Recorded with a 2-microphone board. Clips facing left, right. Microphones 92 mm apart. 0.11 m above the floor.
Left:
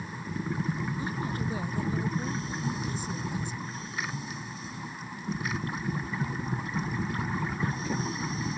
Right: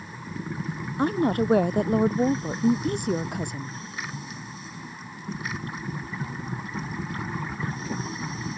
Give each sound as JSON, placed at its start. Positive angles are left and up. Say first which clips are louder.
{"t": 1.0, "sound": "a woman speaking", "louder": "right 10 dB", "side_deg": -70}